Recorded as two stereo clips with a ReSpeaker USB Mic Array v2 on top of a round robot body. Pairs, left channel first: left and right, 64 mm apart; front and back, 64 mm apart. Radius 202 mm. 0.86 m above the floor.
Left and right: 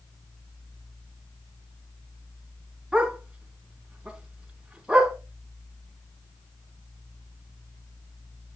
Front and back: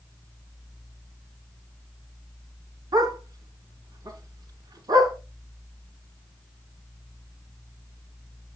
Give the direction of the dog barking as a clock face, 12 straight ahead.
6 o'clock.